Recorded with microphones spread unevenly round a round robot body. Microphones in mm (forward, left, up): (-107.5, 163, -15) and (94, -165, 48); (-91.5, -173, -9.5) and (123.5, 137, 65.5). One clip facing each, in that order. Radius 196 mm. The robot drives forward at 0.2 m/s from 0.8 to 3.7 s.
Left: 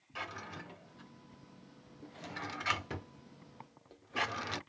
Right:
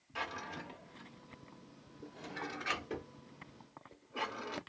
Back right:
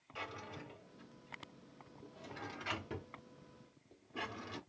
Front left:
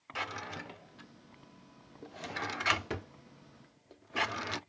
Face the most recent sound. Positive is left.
turn(degrees=80)